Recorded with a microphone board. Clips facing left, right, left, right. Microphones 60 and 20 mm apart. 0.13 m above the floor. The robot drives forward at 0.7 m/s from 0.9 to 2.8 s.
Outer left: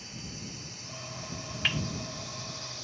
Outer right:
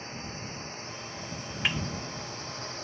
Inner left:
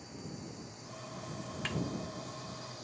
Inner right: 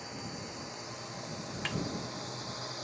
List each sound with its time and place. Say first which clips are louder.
0.0 s a drone: outer right 4 dB, inner right 4 dB; 45° right (ahead or behind); by 2.8 s 40° right (ahead or behind)
1.6 s a snare drum: outer right 1 dB, inner right 1 dB; 10° right (ahead or behind)